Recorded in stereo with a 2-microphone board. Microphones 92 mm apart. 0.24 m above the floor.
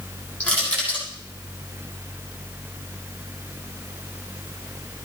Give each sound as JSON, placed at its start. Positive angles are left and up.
{"t": 0.4, "sound": "crushing", "side_deg": 15, "distance_m": 7.0}